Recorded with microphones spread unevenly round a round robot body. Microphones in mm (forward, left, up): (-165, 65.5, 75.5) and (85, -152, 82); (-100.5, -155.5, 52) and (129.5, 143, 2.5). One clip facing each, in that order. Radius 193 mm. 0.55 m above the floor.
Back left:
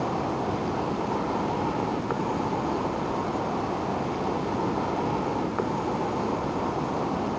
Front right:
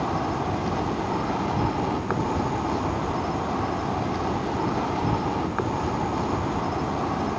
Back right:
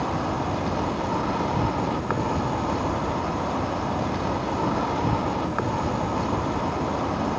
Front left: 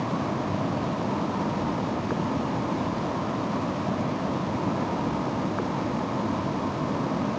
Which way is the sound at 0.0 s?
95° right.